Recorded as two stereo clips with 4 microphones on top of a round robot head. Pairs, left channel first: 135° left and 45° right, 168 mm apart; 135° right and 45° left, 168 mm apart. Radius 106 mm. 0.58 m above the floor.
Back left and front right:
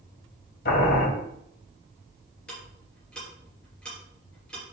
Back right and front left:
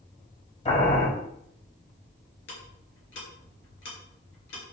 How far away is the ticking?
About 4 m.